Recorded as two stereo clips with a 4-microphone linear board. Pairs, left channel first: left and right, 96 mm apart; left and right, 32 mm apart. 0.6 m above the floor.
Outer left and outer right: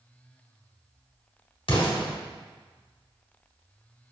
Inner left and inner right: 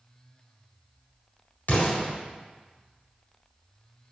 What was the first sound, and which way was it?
An explosion, 65° left (ahead or behind).